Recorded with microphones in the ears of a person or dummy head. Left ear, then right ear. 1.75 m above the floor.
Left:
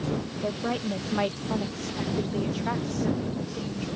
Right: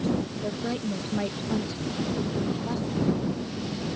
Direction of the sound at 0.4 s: 30° left (ahead or behind).